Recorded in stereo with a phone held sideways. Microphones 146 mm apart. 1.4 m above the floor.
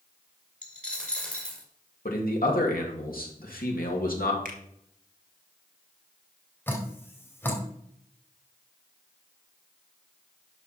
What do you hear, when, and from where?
0.6 s a dropped coin: 10° left (ahead or behind), 1.7 m
2.0 s a man speaking: 85° left, 2.5 m
4.5 s a finger snap: 75° right (ahead or behind), 1.8 m
6.7 s dripping: 15° left (ahead or behind), 2.5 m